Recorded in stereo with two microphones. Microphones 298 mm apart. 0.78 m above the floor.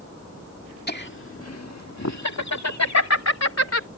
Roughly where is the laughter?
Left.